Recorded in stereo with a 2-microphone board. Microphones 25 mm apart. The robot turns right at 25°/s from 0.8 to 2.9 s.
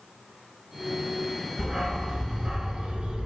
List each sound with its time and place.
1.6 s a dog barking: 165° right, 1.1 m; by 3.3 s 135° right, 1.1 m